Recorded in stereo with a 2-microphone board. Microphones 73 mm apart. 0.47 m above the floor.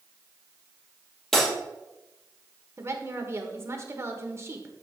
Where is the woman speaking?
40° right (ahead or behind), 1.3 m.